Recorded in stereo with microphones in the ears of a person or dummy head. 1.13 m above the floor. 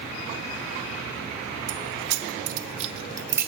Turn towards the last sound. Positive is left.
turn(degrees=-10)  # may be behind; listen again after turning